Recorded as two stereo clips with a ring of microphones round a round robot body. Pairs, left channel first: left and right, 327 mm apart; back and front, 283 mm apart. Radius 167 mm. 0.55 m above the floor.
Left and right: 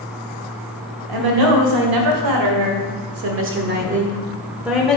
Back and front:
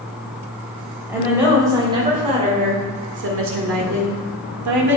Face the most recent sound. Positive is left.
turn(degrees=5)